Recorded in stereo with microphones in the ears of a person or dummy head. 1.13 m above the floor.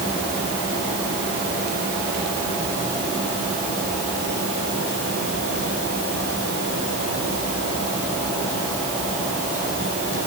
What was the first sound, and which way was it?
Only background noise.